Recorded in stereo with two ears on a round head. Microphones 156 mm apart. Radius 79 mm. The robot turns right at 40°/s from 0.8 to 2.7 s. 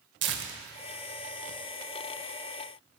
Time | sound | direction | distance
0.2 | tearing paper | 70° right (ahead or behind) | 0.6 m